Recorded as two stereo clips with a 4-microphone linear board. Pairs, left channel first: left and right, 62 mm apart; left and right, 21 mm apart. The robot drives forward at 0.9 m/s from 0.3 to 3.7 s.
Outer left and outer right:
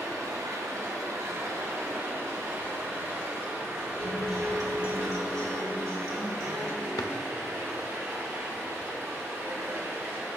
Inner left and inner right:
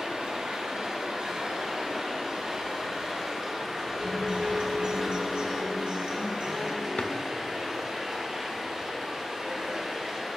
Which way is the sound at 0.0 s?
70° right (ahead or behind).